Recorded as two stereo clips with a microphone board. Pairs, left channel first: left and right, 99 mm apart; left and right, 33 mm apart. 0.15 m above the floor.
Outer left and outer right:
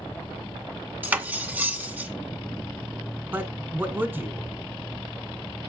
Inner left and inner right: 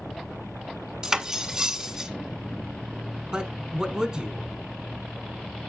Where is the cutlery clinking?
15° right (ahead or behind), 0.6 m.